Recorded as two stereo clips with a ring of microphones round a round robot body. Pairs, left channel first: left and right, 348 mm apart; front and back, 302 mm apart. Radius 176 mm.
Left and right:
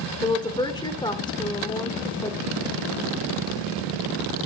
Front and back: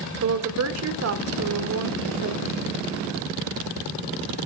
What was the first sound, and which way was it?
A woman speaking, 165° left.